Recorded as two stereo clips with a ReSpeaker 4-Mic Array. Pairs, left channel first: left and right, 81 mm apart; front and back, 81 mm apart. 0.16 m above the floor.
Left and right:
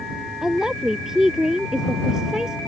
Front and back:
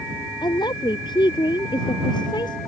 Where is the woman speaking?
5° right.